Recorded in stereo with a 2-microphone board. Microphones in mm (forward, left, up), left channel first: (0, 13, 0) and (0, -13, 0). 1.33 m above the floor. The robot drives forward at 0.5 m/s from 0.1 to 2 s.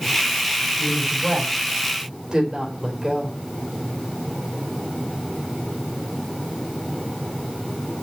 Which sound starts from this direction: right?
A woman speaking, at 0.8 s.